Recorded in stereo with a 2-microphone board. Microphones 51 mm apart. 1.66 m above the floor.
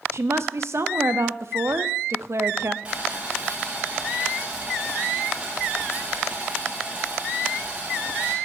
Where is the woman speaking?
60° right (ahead or behind), 0.7 m.